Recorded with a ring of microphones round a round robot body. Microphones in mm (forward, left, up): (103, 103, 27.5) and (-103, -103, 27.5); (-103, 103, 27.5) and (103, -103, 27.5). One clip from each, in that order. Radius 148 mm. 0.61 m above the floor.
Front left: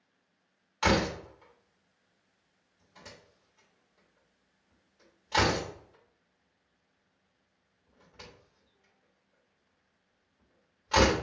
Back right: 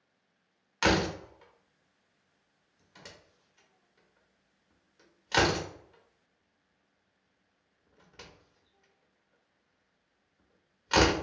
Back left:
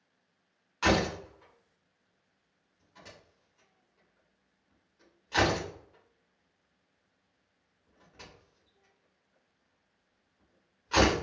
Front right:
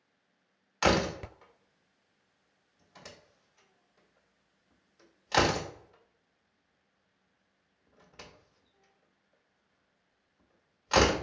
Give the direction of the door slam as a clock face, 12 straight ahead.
3 o'clock.